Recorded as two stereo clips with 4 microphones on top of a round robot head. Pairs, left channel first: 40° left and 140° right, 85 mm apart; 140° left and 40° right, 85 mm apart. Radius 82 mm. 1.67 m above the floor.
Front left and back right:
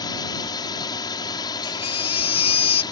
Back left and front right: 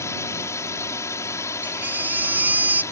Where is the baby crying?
30° left.